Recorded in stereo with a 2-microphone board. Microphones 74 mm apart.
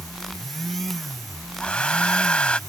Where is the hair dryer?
15° left (ahead or behind).